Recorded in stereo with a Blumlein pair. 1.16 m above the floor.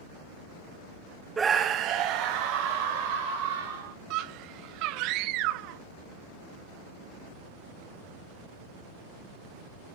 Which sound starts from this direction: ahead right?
A scream, at 4.1 s.